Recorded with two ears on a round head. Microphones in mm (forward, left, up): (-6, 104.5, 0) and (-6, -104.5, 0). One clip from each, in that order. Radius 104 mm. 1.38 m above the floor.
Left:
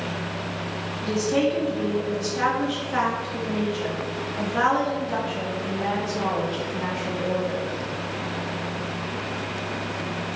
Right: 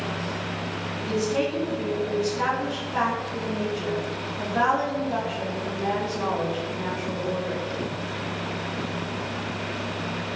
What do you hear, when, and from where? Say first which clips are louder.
1.0 s a woman speaking: left 3 dB; 55° left (ahead or behind), 1.6 m